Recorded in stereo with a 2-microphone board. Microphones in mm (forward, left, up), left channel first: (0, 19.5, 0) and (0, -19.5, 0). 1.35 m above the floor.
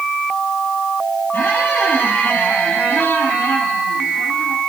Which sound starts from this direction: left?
A squeak, at 1.3 s.